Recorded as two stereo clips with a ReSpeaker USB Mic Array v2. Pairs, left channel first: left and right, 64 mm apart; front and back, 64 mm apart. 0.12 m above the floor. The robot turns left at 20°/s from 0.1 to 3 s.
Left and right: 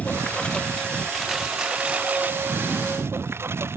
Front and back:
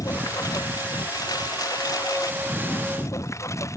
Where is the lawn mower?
20° left; by 3.8 s 40° right.